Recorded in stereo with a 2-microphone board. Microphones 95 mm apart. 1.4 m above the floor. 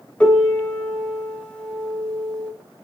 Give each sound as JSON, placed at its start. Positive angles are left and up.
{"t": 0.2, "sound": "a piano", "side_deg": 15, "distance_m": 0.6}